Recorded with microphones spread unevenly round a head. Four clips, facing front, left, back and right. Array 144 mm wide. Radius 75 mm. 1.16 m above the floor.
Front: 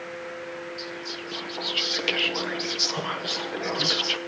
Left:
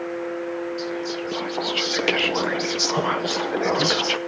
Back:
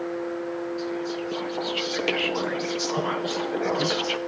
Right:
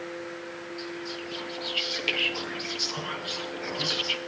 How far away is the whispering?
About 0.7 m.